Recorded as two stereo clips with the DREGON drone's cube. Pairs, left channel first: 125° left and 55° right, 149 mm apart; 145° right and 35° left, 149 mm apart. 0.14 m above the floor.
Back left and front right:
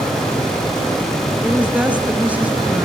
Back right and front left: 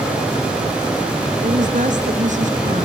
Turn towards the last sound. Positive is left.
turn(degrees=20)